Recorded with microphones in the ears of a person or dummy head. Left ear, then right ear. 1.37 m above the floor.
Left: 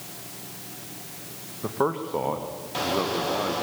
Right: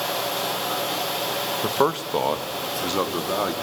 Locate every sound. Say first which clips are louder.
1.6 s a man speaking: right 2 dB; 70° right (ahead or behind), 1.4 m; by 3.5 s 75° right (ahead or behind), 3 m